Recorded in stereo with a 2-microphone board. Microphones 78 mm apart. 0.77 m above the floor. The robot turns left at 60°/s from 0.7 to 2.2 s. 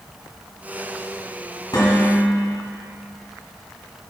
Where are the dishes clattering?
60° left (ahead or behind), 3.5 m; by 2.4 s 30° left (ahead or behind), 3.5 m.